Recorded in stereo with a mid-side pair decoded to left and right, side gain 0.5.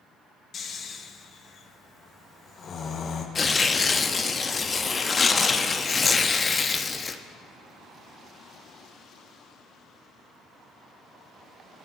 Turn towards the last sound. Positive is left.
turn(degrees=25)